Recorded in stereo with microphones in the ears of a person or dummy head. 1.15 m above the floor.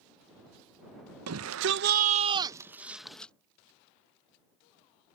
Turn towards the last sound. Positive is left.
turn(degrees=5)  # may be behind; listen again after turning